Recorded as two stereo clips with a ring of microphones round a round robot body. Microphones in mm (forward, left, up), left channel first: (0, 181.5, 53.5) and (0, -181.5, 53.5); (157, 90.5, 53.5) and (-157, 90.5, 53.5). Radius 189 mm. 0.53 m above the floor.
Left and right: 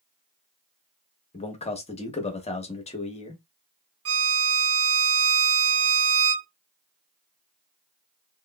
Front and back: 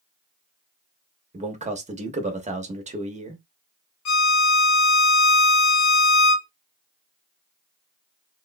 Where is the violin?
40° right, 0.6 m.